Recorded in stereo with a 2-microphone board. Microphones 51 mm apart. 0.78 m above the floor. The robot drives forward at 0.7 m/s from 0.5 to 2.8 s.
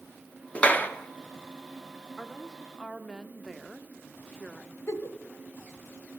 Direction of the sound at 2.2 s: 5° right (ahead or behind).